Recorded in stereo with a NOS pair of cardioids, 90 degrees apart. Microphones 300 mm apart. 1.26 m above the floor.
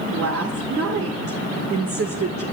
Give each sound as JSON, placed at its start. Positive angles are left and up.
{"t": 0.1, "sound": "a woman speaking", "azimuth_deg": -50, "distance_m": 1.9}